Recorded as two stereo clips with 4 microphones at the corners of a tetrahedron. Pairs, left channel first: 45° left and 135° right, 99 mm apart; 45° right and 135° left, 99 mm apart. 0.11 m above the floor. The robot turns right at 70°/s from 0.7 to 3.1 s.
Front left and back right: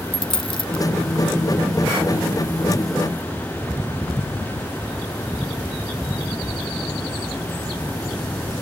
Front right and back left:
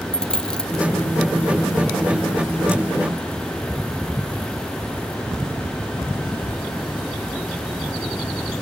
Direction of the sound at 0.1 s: 35° left.